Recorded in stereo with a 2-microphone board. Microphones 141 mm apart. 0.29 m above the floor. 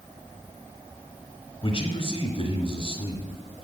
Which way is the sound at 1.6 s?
40° left (ahead or behind).